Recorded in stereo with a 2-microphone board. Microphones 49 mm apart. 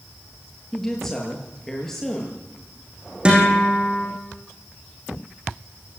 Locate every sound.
0.7 s a woman speaking: 10° left (ahead or behind), 9.5 m
3.2 s a guitar: 20° right (ahead or behind), 9.5 m